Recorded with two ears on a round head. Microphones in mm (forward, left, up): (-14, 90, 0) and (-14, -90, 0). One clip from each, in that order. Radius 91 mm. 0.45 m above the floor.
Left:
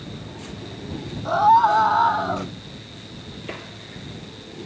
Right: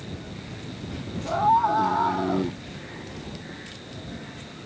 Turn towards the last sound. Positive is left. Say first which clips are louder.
# left 5 dB
turn(degrees=60)  # may be behind; listen again after turning